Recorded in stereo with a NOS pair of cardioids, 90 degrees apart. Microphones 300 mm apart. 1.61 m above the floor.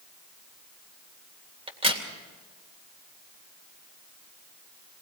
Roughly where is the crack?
Ahead.